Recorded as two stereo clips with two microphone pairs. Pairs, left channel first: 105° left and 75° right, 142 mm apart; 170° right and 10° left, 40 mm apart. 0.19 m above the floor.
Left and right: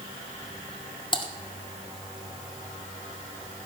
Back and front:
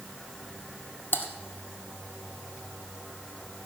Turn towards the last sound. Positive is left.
turn(degrees=160)